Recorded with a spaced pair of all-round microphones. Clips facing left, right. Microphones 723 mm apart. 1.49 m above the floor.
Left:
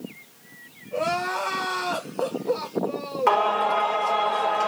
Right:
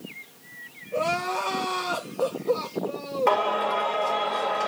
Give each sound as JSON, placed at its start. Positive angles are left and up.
{"t": 0.9, "sound": "crying", "side_deg": 75, "distance_m": 2.5}
{"t": 3.3, "sound": "singing", "side_deg": 40, "distance_m": 2.0}